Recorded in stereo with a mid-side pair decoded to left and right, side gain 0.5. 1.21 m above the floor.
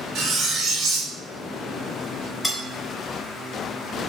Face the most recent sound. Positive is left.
turn(degrees=25)